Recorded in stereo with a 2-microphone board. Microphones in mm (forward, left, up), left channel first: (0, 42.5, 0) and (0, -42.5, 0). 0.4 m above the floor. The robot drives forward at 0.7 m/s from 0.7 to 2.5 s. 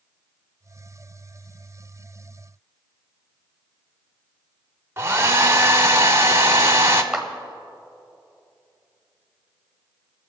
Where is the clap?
5° right (ahead or behind), 1.4 m.